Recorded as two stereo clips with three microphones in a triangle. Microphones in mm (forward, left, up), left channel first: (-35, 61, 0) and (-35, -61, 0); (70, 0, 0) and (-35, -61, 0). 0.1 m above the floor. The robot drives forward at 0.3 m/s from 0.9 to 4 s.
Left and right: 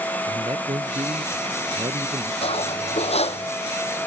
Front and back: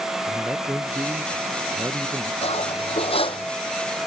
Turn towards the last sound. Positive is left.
turn(degrees=70)